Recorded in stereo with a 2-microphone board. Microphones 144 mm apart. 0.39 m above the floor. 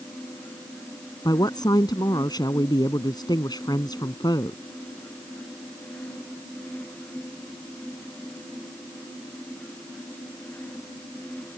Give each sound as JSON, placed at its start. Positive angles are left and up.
{"t": 1.2, "sound": "a woman speaking", "side_deg": 30}